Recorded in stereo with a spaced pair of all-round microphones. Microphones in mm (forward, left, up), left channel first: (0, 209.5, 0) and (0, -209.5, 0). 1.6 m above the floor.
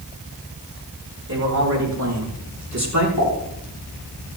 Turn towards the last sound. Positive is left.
turn(degrees=50)  # may be behind; listen again after turning